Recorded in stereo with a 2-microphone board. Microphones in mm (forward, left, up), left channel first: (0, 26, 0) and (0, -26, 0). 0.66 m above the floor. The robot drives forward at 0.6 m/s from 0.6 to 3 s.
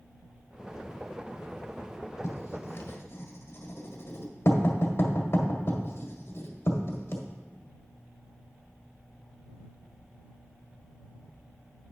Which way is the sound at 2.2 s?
70° left (ahead or behind).